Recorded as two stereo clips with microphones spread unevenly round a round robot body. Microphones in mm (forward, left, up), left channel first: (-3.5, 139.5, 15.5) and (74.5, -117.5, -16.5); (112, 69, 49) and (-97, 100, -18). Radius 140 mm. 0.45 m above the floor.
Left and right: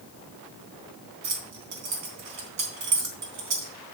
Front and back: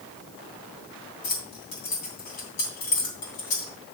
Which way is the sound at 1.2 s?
50° right.